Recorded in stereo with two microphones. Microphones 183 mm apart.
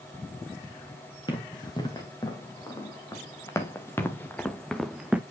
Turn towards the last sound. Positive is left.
turn(degrees=-10)  # may be behind; listen again after turning